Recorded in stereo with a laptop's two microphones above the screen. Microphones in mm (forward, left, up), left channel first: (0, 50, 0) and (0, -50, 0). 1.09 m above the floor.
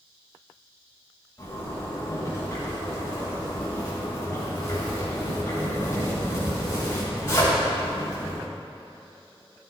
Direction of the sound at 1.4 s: 25° left (ahead or behind).